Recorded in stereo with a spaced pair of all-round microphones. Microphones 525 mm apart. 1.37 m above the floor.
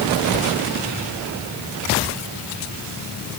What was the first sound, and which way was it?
Only background noise.